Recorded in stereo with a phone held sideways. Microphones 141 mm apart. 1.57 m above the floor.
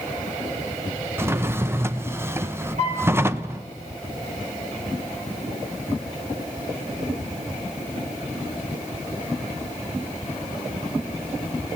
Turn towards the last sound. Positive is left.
turn(degrees=-55)  # may be behind; listen again after turning